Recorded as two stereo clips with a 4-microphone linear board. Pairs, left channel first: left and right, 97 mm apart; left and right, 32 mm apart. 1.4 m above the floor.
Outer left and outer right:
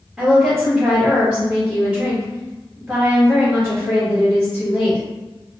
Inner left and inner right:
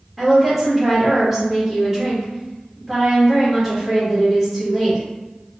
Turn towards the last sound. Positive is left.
turn(degrees=0)  # may be behind; listen again after turning